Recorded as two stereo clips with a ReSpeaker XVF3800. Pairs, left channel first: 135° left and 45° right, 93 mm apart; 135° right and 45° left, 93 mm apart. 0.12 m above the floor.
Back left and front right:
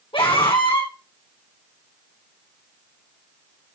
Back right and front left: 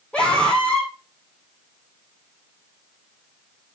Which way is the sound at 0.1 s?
150° left.